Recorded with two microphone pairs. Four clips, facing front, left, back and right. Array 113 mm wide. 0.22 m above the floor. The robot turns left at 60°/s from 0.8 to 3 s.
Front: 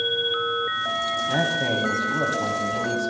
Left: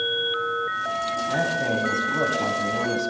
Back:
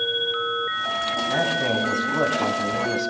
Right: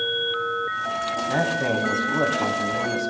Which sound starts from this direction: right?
A man speaking, at 1.3 s.